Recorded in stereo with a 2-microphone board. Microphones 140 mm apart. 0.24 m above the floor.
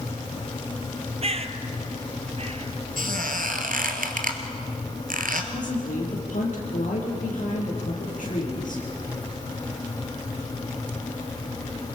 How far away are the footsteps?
I don't hear footsteps.